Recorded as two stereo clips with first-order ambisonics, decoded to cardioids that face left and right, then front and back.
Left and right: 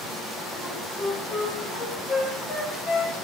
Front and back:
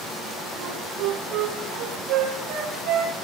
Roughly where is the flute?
Behind left.